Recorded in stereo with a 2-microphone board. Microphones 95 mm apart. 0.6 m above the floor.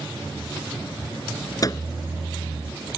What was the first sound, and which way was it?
A microwave, 35° left (ahead or behind).